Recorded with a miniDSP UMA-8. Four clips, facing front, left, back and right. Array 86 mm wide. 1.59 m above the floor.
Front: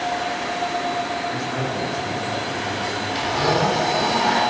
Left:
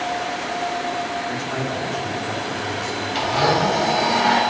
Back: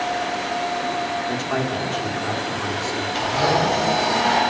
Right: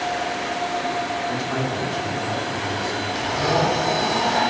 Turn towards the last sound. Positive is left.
turn(degrees=110)